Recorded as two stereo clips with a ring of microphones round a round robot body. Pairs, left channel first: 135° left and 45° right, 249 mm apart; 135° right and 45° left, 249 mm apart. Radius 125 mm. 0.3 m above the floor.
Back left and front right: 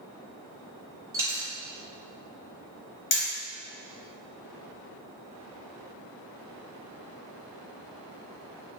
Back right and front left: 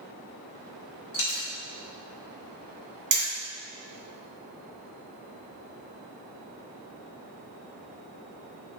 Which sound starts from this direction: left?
Hammering, at 3.1 s.